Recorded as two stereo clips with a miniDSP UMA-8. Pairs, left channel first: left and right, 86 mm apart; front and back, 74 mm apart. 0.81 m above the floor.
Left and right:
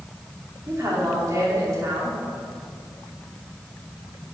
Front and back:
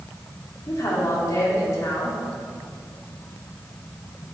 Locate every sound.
0.7 s a woman speaking: 40° right, 2.5 m